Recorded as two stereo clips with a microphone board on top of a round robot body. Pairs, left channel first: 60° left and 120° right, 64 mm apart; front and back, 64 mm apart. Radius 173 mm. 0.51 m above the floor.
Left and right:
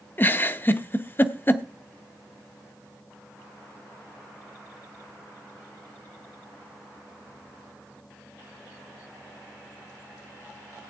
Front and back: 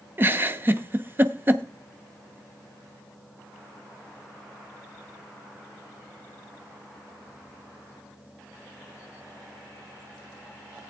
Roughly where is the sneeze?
No sneeze in this recording.